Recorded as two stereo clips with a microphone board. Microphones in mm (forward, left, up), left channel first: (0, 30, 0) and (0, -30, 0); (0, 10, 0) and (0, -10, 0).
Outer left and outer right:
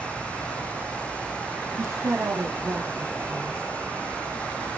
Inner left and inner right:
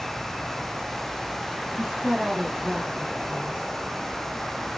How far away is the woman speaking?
About 1.1 m.